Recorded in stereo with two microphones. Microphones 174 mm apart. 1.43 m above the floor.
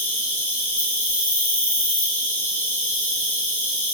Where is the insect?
10° left (ahead or behind), 1.1 m.